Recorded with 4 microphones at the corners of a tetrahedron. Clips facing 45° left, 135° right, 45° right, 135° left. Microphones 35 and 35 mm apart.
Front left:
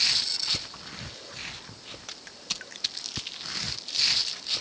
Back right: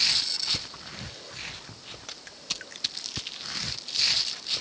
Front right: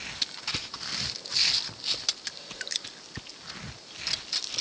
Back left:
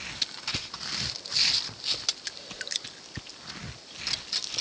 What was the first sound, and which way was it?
Only background noise.